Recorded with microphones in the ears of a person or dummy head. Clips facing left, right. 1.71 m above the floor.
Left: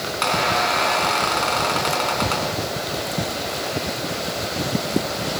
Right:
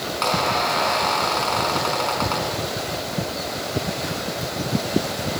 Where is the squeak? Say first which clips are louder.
Left 1 dB; 25° left (ahead or behind), 5 m.